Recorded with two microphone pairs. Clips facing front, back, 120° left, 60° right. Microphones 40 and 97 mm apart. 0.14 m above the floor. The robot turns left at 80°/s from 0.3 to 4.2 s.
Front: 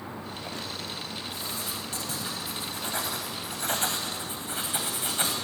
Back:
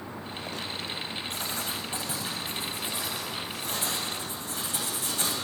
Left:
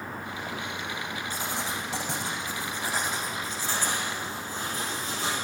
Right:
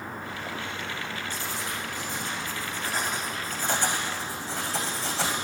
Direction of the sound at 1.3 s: 165° left.